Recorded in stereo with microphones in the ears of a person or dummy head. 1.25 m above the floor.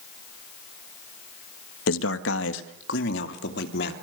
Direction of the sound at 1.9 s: 85° left.